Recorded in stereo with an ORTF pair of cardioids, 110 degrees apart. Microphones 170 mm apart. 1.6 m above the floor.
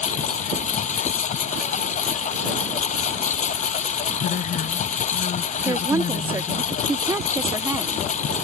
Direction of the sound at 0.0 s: 45° left.